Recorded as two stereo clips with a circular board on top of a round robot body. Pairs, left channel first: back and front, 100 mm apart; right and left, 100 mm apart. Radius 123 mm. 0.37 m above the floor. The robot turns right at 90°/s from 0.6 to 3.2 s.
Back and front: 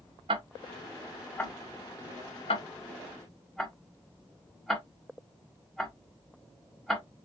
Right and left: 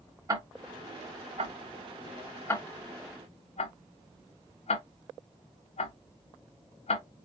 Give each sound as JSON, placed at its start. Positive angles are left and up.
{"t": 0.3, "sound": "ticking", "azimuth_deg": 35, "distance_m": 0.8}